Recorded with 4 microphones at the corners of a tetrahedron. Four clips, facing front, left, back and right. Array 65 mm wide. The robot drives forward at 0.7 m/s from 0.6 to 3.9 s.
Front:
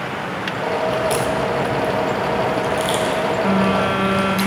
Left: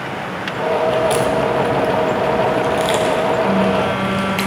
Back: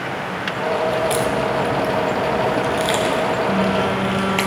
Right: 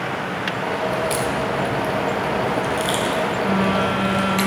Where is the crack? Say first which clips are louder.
Left 6 dB, even; 70° left, 1.1 m; by 4.4 s 150° left, 2 m.